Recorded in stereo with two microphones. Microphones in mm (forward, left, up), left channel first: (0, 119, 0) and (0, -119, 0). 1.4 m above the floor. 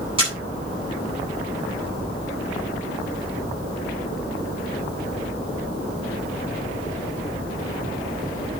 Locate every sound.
0.2 s a camera shutter: 20° right (ahead or behind), 8.5 m